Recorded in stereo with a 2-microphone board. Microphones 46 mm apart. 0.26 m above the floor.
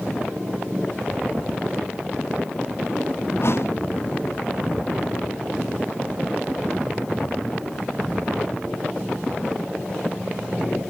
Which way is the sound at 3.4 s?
60° left (ahead or behind).